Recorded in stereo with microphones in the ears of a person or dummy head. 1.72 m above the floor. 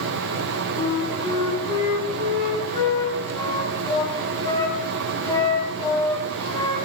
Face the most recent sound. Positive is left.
turn(degrees=20)  # may be behind; listen again after turning